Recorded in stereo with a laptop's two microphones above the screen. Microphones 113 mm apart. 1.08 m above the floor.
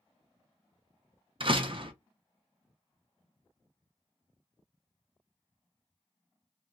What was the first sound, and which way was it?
A door slam, 50° right (ahead or behind).